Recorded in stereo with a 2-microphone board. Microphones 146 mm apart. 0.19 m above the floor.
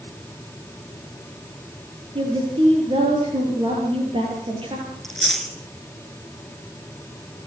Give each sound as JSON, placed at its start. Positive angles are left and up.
{"t": 2.1, "sound": "a woman speaking", "side_deg": -35, "distance_m": 5.0}
{"t": 5.0, "sound": "chewing", "side_deg": 0, "distance_m": 2.5}